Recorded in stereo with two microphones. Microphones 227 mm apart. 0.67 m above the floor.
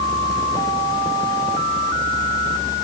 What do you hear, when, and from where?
Only background noise.